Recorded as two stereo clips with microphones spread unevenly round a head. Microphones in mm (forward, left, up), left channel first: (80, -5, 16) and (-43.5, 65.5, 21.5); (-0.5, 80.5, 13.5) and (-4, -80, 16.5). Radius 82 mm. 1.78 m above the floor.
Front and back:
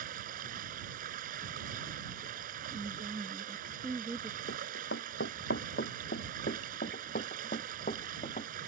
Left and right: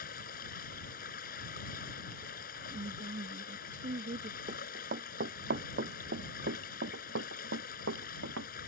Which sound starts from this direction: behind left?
Running water, at 0.0 s.